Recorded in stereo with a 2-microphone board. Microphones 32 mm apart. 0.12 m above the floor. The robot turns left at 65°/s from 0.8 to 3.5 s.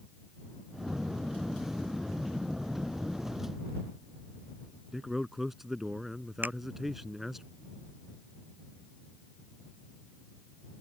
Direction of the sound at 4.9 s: 10° right (ahead or behind).